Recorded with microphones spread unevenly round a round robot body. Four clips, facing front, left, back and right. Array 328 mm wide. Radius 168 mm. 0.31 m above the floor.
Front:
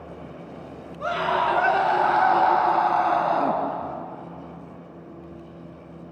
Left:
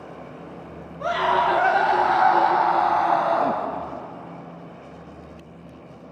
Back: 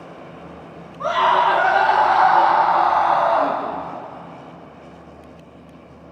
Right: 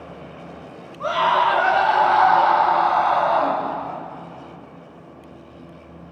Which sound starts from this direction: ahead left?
A scream, at 1.0 s.